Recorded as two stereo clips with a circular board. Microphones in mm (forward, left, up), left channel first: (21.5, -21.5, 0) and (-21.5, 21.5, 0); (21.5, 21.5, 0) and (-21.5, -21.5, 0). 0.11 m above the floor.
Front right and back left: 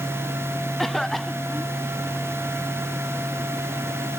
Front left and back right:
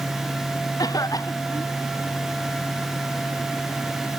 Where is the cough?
45° left.